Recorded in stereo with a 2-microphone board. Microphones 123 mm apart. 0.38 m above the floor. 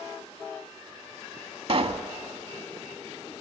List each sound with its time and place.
1.7 s a pop: 50° right (ahead or behind), 0.8 m